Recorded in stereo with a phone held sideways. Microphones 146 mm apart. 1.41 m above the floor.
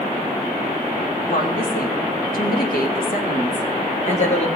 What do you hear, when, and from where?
1.3 s a woman speaking: 75° left (ahead or behind), 2 m; by 4.5 s 45° left (ahead or behind), 1.7 m